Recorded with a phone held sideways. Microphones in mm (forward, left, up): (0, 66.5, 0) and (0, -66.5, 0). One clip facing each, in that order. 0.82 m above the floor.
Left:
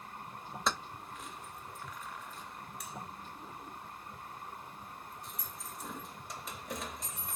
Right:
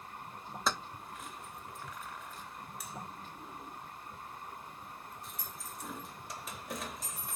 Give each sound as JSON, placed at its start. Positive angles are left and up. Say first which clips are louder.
{"t": 0.7, "sound": "keys jangling", "louder": "even", "side_deg": 0, "distance_m": 0.6}